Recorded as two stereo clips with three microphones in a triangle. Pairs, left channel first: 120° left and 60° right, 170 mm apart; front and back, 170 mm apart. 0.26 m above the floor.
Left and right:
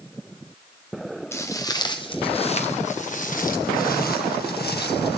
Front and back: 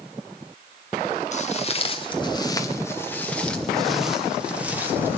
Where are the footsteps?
45° left, 1.9 m; by 5.2 s 105° left, 3 m.